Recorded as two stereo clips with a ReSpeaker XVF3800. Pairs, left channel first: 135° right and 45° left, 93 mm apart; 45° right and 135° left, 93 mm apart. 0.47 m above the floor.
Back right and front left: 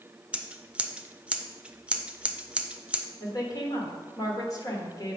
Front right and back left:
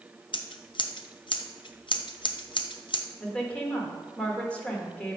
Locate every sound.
0.3 s scissors: 30° right, 0.5 m
3.2 s a woman speaking: 115° right, 1.4 m